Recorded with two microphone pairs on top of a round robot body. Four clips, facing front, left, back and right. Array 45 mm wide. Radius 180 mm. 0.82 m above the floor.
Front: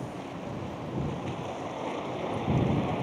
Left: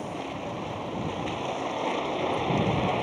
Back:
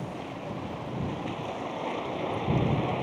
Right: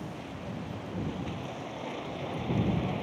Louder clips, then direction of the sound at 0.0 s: Left 7 dB, back 1 dB; 100° left.